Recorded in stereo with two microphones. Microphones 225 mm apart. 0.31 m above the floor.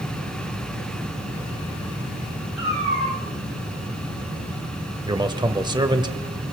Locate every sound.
2.6 s a cat meowing: 65° left (ahead or behind), 7.5 m
5.1 s a man speaking: 20° right (ahead or behind), 1.0 m